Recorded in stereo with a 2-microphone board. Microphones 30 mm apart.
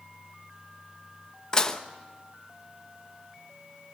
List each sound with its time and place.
1.5 s dishes clattering: 20° left (ahead or behind), 1.0 m